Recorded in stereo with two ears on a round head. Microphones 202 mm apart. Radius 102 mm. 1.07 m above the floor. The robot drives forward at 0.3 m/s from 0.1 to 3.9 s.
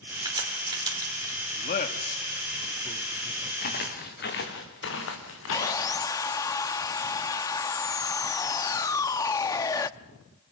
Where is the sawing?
15° left (ahead or behind), 0.6 m.